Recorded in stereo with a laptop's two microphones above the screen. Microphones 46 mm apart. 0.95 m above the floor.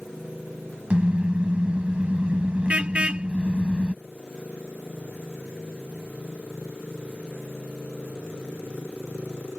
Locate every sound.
0.9 s a car horn: 25° right (ahead or behind)